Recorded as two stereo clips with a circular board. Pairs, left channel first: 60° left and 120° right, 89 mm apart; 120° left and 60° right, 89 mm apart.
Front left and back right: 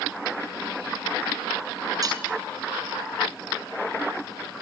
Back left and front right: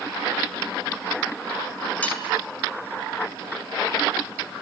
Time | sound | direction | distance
2.0 | cutlery clinking | 165° right | 6 m